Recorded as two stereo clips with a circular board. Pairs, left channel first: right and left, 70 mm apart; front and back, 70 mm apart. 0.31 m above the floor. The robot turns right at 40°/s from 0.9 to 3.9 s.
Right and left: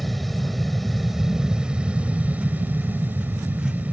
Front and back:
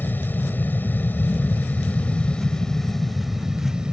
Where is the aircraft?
Straight ahead; by 3.9 s 120° left.